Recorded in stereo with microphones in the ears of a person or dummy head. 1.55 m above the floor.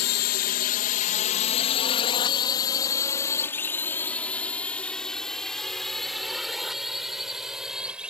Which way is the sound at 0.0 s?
60° left (ahead or behind).